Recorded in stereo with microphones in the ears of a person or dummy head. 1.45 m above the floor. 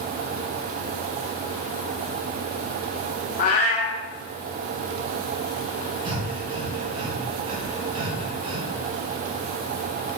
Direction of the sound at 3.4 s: 40° left (ahead or behind).